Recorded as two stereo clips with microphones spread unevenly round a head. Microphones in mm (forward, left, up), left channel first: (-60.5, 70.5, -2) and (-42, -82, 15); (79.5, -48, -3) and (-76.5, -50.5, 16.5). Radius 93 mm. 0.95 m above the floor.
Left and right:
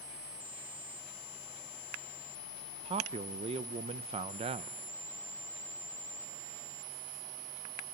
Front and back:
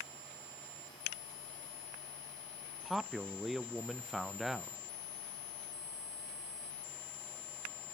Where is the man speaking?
80° right, 0.5 m.